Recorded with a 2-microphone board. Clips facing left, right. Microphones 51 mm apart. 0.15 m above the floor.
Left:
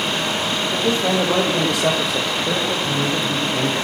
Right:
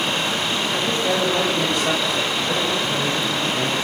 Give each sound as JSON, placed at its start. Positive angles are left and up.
{"t": 0.7, "sound": "a man speaking", "side_deg": 75, "distance_m": 5.5}